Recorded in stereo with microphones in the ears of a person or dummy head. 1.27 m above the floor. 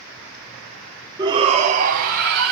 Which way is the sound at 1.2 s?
20° right (ahead or behind).